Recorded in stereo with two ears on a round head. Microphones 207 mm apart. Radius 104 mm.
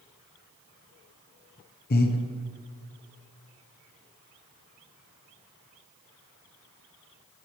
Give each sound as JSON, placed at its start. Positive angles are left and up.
{"t": 1.9, "sound": "breathing", "side_deg": 40, "distance_m": 0.8}